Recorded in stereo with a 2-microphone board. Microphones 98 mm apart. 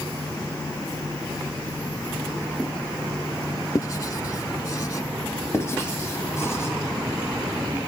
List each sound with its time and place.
3.8 s writing: 35° left (ahead or behind), 0.5 m
5.5 s writing: 30° left (ahead or behind), 1.7 m